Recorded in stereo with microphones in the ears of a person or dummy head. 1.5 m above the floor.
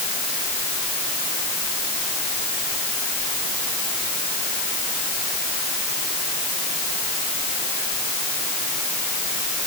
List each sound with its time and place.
Only background noise.